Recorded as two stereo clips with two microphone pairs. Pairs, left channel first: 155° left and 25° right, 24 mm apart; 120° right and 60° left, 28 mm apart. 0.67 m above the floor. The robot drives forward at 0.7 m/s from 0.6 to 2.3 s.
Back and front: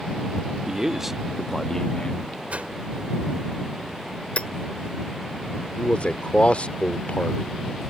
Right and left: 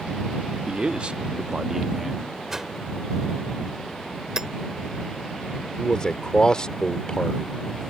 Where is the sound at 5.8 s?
175° right.